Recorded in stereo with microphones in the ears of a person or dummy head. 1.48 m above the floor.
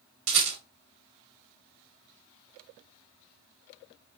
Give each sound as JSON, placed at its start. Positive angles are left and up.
{"t": 0.3, "sound": "a rattle", "side_deg": -80, "distance_m": 1.6}